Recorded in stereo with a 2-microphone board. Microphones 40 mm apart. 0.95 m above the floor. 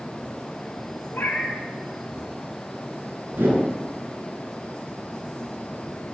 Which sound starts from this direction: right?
A whoosh, at 3.3 s.